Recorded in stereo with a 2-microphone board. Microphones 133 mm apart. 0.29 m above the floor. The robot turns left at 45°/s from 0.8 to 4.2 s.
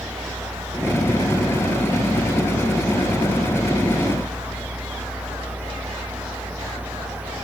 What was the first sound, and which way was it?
Only background noise.